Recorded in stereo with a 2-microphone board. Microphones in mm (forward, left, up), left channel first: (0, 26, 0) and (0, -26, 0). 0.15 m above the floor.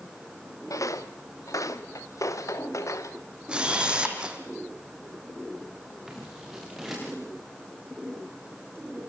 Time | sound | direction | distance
0.7 | footsteps | 80° left | 2 m
3.5 | a camera shutter | 15° right (ahead or behind) | 3.5 m
6.1 | scissors | 5° right (ahead or behind) | 9 m